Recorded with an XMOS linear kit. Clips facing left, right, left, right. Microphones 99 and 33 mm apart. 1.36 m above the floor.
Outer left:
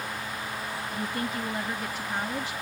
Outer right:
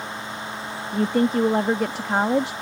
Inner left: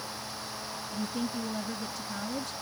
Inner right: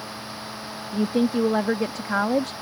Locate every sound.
0.9 s a woman speaking: 75° right (ahead or behind)